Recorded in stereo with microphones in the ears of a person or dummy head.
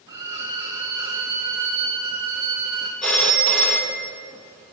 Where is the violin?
15° right (ahead or behind), 1.4 m.